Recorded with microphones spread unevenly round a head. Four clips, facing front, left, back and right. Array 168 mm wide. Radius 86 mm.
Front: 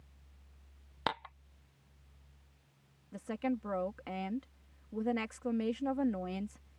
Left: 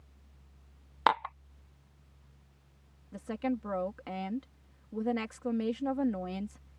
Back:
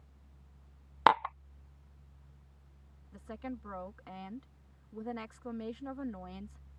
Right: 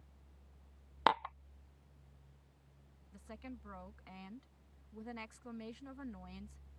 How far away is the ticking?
No ticking in this recording.